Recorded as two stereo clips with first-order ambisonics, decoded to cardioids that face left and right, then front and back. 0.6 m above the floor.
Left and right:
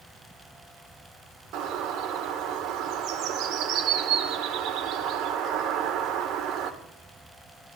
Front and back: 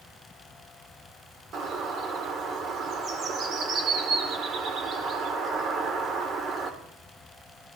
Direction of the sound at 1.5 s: 125° right.